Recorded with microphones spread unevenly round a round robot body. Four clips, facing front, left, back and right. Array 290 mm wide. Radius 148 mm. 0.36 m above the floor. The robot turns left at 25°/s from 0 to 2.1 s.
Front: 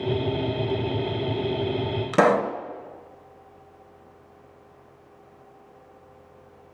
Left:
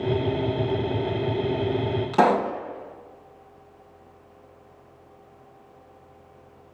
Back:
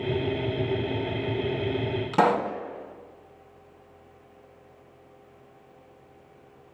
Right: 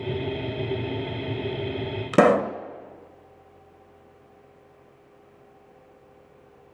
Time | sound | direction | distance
2.1 | a pop | 80° right | 0.8 m